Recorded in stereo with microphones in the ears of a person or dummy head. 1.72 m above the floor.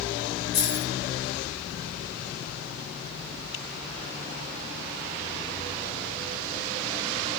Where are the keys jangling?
25° left (ahead or behind), 7.5 m.